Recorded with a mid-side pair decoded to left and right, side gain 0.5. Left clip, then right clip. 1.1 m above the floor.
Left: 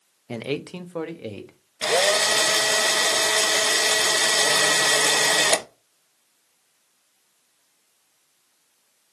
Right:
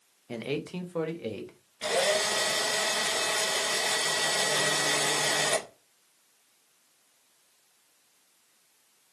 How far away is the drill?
About 0.9 m.